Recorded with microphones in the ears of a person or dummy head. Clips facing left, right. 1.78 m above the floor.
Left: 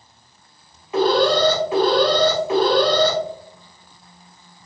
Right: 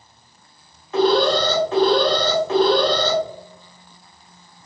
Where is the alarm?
10° left (ahead or behind), 0.8 m.